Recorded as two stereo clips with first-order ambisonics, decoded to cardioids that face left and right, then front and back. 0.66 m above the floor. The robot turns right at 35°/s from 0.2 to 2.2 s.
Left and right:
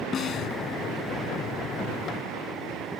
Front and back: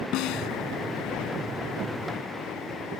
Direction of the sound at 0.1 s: 30° left.